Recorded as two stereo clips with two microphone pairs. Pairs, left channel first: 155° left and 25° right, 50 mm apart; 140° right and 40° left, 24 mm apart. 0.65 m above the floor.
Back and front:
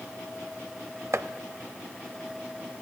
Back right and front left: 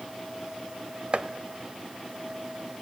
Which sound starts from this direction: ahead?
Chopping, at 1.1 s.